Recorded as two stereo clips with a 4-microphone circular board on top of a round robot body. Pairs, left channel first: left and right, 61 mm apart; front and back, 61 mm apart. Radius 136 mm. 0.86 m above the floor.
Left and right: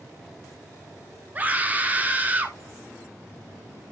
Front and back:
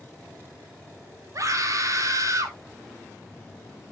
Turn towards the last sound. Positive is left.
turn(degrees=-155)